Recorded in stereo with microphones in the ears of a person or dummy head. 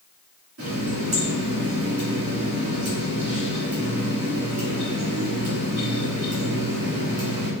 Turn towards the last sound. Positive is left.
turn(degrees=-55)  # may be behind; listen again after turning